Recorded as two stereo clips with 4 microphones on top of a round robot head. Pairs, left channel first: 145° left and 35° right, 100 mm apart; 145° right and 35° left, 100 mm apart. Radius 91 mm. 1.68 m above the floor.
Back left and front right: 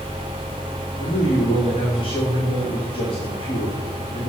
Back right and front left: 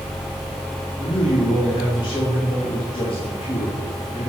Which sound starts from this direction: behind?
A man speaking, at 1.0 s.